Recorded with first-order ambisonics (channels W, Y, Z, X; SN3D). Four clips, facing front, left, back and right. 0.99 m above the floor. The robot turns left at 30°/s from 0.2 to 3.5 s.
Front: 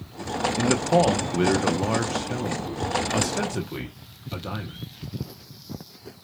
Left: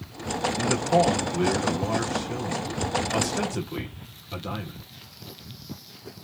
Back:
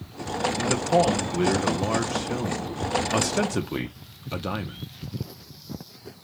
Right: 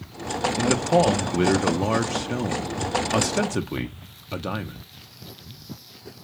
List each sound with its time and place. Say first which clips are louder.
0.6 s a man speaking: right 2 dB, front 2 dB; 40° right, 0.5 m; by 4.8 s 125° right, 0.5 m